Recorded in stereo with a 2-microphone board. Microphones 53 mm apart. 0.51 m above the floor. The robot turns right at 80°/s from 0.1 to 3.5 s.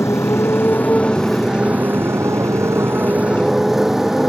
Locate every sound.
0.0 s a motorcycle: 80° left; by 4.3 s 5° right